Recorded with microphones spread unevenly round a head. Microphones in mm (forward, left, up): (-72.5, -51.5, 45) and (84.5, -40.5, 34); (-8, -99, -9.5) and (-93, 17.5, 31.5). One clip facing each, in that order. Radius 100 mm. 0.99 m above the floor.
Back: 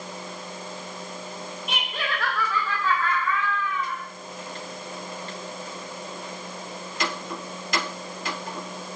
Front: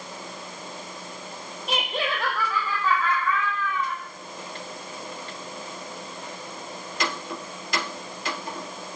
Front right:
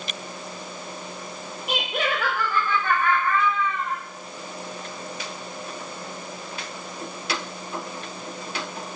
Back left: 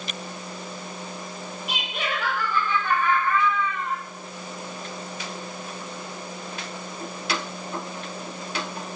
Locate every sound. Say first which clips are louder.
1.7 s laughter: front 5 dB, front right 5 dB; 45° right, 0.8 m; by 4.0 s 85° right, 2.0 m